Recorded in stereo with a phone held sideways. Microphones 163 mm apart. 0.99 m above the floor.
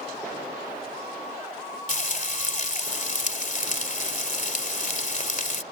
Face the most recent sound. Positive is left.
turn(degrees=50)  # may be behind; listen again after turning